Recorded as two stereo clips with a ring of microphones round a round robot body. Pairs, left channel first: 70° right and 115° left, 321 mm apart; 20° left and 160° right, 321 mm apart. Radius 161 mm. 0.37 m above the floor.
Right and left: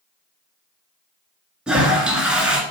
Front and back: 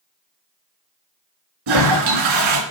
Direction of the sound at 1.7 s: 160° right.